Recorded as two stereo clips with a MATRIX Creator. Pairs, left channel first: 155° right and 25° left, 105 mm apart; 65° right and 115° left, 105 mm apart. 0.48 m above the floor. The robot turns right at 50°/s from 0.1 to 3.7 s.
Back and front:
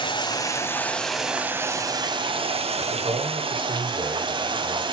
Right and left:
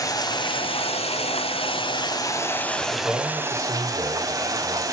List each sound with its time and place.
0.0 s running water: 120° right, 1.6 m; by 4.9 s 60° left, 1.6 m
2.8 s a man speaking: 20° left, 5.5 m; by 4.8 s 65° left, 5.5 m